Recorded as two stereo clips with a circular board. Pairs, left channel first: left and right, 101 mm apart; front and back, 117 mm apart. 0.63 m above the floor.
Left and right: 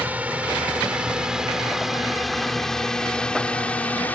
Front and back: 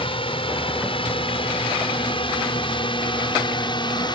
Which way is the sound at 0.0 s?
20° right.